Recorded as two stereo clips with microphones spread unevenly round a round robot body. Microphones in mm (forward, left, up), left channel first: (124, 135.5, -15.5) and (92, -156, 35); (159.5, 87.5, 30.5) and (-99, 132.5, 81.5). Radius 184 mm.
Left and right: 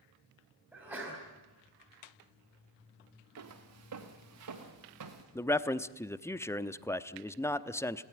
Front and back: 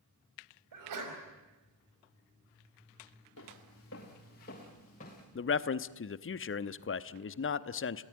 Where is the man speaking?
10° left, 0.9 m.